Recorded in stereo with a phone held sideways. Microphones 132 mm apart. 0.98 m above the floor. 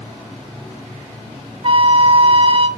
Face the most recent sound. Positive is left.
turn(degrees=-40)  # may be behind; listen again after turning